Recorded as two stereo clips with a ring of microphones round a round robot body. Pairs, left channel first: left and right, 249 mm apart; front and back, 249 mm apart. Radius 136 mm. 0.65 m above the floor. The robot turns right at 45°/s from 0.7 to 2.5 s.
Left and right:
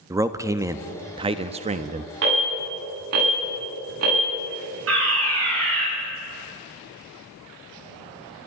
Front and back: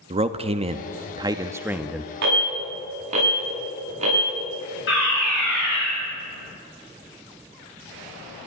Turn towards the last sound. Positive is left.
turn(degrees=-50)